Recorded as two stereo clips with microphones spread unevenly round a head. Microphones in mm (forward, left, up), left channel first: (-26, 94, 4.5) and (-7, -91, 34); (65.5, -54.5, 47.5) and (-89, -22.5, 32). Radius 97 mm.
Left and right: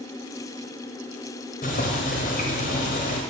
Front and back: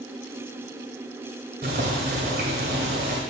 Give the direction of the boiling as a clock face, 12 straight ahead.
8 o'clock.